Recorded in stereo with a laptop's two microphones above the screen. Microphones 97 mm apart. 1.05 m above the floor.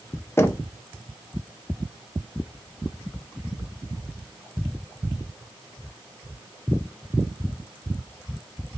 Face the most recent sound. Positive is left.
turn(degrees=25)  # may be behind; listen again after turning